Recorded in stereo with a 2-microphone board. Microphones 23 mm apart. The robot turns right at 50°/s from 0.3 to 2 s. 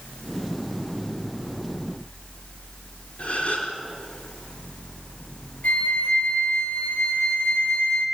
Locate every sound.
3.2 s a gasp: 70° left (ahead or behind), 4.5 m
5.6 s a flute: 90° left, 2.5 m